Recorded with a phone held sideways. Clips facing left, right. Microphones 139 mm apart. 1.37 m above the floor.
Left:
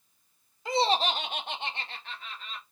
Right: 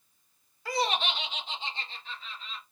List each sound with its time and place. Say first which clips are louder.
0.7 s laughter: left 4 dB; 20° left (ahead or behind), 0.7 m; by 2.6 s 55° left (ahead or behind), 1.2 m